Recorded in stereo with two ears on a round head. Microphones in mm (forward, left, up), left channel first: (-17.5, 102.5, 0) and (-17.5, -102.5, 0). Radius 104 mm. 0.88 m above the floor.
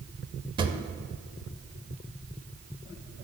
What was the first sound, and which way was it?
A drawer, 20° right (ahead or behind).